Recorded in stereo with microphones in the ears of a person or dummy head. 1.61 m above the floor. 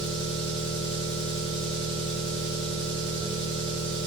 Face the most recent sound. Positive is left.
turn(degrees=5)  # may be behind; listen again after turning